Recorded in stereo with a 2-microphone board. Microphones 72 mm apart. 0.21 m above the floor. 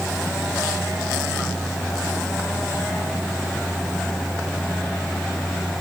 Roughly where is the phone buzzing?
I don't hear a phone buzzing.